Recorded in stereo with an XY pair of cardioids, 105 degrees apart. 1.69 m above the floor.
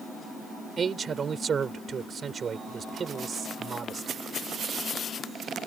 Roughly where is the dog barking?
I don't hear a dog barking.